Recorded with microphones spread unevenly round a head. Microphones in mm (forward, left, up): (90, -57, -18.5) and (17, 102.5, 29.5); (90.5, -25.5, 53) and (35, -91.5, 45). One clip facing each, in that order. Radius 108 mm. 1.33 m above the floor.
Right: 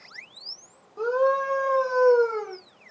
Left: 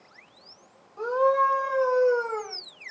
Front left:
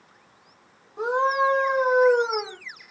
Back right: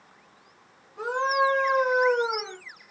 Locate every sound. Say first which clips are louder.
1.0 s a scream: right 1 dB, front left 2 dB; 10° right, 4 m; by 2.6 s 25° right, 5 m